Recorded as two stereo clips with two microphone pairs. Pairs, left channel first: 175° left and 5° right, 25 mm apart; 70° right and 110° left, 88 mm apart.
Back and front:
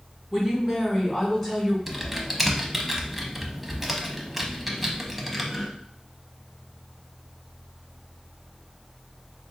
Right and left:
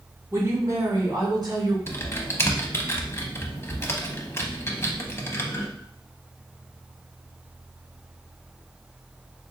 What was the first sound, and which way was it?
A woman speaking, 70° left.